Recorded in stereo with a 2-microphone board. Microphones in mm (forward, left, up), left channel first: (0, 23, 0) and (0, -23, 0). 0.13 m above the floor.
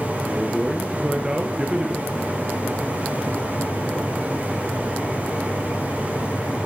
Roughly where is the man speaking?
Centre.